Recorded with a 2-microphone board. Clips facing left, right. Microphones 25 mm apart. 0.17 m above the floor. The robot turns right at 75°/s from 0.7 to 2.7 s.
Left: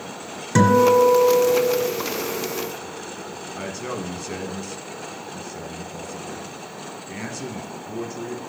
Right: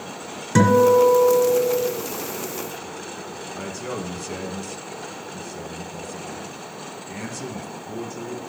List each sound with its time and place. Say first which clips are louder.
0.6 s a guitar: even; 5° left (ahead or behind), 1.7 m; by 1.8 s 25° right (ahead or behind), 1.7 m
3.5 s a man speaking: left 1 dB; 10° left (ahead or behind), 1.0 m